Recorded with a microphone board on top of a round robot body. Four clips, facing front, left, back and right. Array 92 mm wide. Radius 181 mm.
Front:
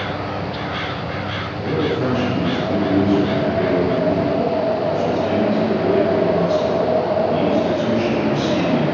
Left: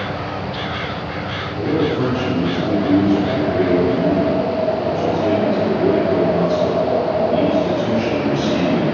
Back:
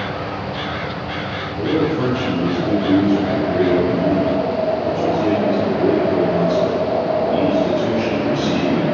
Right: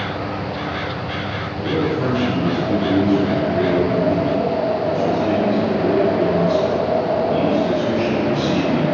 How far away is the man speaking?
About 3 m.